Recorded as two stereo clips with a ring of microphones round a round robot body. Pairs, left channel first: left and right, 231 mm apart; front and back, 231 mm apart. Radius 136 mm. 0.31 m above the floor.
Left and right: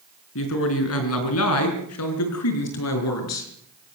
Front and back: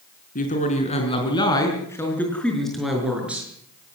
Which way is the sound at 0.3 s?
55° left.